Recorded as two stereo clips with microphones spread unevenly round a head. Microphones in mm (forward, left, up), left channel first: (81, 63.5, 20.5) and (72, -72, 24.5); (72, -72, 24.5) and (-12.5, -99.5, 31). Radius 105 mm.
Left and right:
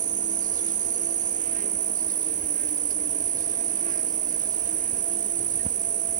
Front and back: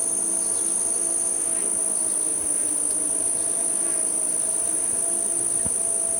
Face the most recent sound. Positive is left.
turn(degrees=-70)